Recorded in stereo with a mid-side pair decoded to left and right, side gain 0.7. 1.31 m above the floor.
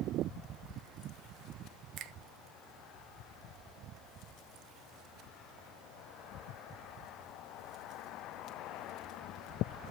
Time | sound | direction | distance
2.0 | a finger snap | 55° right | 0.6 m